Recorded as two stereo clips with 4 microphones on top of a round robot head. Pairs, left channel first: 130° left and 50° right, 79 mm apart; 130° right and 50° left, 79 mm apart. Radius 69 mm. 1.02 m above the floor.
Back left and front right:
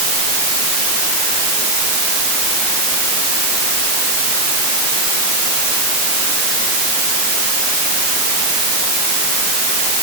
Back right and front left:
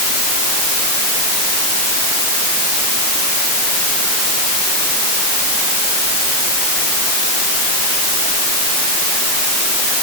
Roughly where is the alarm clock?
I don't hear an alarm clock.